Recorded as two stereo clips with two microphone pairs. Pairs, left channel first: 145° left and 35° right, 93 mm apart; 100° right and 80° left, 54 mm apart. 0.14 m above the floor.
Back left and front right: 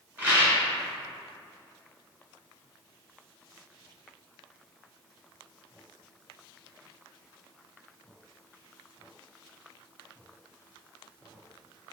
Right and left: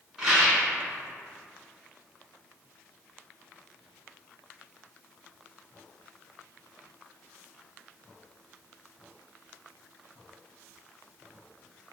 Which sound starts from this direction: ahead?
A rattle, at 0.2 s.